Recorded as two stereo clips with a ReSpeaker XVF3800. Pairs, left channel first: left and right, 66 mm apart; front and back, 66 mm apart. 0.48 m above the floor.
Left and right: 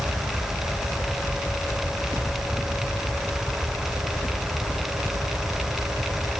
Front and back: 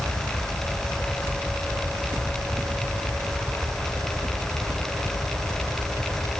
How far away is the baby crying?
No baby crying in this recording.